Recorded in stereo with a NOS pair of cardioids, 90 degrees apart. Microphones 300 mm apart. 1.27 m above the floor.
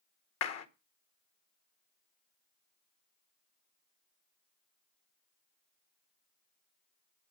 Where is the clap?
60° left, 1.9 m.